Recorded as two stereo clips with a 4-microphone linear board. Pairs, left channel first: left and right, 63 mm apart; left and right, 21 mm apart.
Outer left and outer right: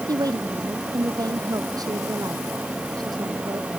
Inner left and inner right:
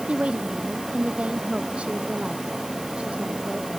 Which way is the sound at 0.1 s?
75° right (ahead or behind).